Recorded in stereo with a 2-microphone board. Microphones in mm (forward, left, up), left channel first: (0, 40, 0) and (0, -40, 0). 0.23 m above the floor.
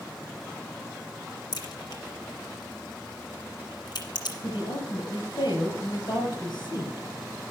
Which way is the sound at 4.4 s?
60° left (ahead or behind).